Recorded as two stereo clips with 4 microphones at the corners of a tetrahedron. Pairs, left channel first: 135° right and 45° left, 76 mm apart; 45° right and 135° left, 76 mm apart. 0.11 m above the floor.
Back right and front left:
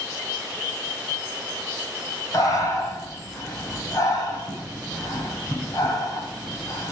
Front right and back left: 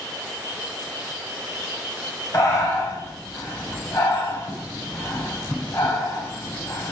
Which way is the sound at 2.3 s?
95° right.